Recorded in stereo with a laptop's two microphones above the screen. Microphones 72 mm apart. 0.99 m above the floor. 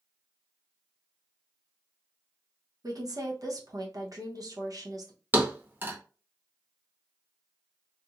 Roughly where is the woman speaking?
Right.